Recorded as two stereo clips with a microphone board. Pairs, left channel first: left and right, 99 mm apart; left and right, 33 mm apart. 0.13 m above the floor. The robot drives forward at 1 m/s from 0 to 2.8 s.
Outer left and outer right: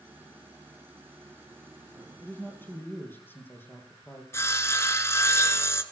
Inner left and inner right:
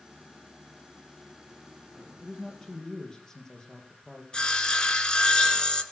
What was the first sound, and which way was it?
A man speaking, 25° left (ahead or behind).